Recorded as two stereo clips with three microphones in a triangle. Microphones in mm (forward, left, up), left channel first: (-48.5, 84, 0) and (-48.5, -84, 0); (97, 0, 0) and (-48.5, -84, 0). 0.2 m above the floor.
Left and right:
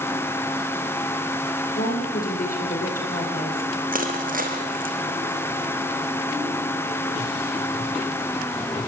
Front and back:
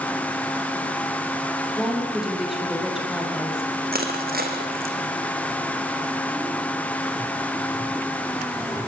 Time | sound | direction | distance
1.7 | a woman speaking | 125° left | 6.5 m
3.9 | crushing | 125° right | 3.5 m